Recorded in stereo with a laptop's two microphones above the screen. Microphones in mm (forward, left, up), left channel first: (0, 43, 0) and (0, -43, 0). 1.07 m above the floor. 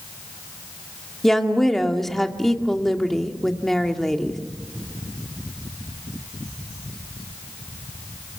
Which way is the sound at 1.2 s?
5° left (ahead or behind).